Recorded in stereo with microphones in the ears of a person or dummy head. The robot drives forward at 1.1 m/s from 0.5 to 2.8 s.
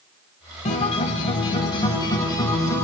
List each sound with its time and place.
0.7 s a guitar: 35° left (ahead or behind), 1.5 m; by 2.8 s 15° left (ahead or behind), 3.5 m